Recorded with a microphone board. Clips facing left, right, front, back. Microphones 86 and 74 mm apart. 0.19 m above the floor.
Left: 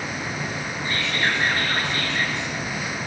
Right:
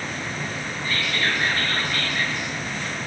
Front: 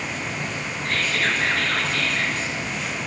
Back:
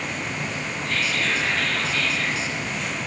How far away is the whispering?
About 2.5 m.